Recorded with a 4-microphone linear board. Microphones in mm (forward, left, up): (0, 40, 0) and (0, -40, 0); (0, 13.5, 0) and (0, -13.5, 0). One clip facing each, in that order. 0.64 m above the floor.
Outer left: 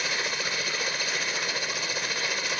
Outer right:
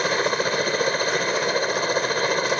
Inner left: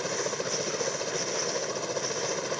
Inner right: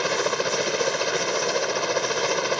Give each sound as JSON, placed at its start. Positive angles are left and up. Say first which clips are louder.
{"t": 0.0, "sound": "a helicopter", "louder": "outer right 9 dB, inner right 7 dB", "side_deg": -45}